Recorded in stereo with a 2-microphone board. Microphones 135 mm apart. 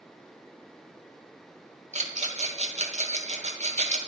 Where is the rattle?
60° right (ahead or behind), 1.2 m.